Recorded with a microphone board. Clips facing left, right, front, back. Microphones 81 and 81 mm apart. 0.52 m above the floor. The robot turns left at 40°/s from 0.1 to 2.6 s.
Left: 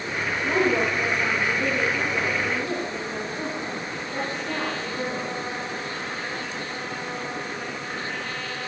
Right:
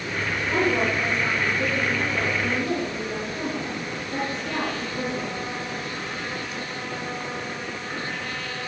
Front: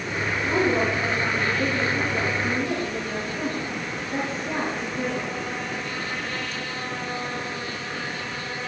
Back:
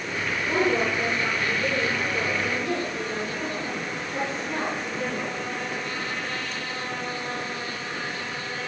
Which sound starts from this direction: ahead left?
A woman speaking, at 0.4 s.